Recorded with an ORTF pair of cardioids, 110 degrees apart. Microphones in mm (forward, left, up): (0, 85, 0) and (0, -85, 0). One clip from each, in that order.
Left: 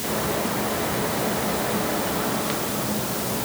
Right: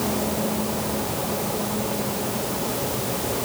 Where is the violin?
No violin in this recording.